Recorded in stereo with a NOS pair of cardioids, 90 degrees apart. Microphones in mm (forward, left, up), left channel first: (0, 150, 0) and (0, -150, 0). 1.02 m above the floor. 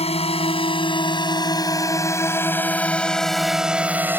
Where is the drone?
20° left; by 4.2 s 5° right.